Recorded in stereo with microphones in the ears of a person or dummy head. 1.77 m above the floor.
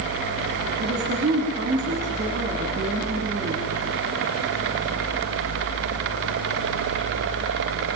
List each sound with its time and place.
0.8 s a woman speaking: 35° right (ahead or behind), 4.5 m